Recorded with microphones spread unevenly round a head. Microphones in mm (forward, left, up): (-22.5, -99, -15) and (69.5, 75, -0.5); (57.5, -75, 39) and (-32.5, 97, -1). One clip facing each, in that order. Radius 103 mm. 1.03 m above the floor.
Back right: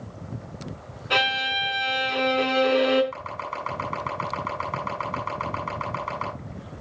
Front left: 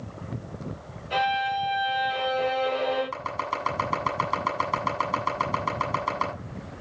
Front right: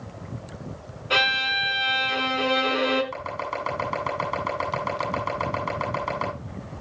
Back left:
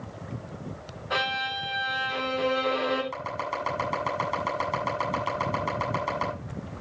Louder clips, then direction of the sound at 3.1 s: Front left 2 dB, front right 2 dB; 30° left.